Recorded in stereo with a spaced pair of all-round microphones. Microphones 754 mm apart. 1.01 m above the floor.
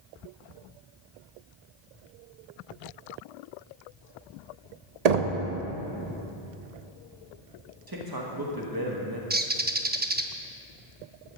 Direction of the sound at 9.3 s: 15° right (ahead or behind).